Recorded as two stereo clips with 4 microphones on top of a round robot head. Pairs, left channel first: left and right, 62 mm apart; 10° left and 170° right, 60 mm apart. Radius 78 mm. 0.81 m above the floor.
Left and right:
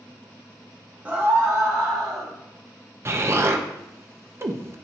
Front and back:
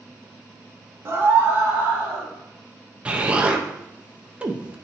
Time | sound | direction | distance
1.1 | a scream | 145° right | 1.3 m
3.0 | an explosion | 110° right | 0.7 m